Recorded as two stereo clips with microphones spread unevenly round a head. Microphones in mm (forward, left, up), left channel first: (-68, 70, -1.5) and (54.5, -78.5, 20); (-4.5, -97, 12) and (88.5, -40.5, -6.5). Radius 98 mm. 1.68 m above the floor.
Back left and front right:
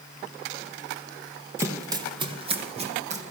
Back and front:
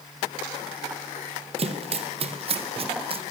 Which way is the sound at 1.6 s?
15° left.